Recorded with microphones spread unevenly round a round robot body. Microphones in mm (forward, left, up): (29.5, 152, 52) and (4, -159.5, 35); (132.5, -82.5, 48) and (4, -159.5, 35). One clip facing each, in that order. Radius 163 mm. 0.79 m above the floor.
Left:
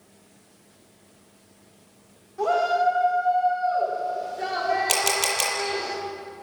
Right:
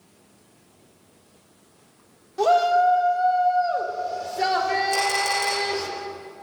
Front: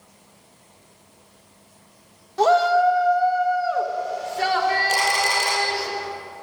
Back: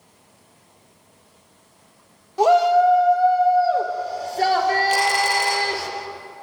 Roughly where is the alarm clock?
No alarm clock in this recording.